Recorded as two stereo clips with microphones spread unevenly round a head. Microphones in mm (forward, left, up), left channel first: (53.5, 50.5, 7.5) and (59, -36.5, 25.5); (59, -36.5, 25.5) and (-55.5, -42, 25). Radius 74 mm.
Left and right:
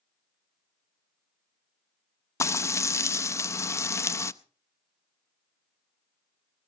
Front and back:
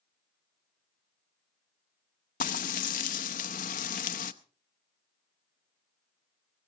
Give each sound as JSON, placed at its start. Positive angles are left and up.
{"t": 2.4, "sound": "frying", "azimuth_deg": 35, "distance_m": 0.6}